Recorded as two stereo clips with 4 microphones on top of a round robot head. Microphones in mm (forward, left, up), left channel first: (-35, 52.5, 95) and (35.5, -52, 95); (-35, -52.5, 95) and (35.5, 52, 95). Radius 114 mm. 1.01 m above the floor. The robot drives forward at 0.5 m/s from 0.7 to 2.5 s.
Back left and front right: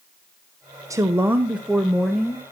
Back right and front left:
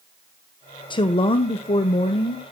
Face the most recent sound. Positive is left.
turn(degrees=-150)